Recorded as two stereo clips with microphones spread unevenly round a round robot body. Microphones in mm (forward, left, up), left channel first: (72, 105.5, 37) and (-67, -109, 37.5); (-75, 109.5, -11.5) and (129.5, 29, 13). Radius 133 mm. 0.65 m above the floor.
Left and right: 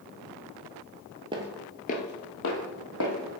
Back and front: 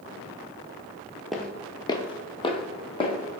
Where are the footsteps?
95° right, 0.6 m; by 3.4 s 90° left, 2 m.